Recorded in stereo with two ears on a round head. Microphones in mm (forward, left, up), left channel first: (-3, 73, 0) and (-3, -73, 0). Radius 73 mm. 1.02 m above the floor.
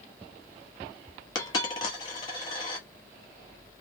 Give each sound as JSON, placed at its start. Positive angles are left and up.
{"t": 1.4, "sound": "a dropped coin", "side_deg": 25, "distance_m": 0.9}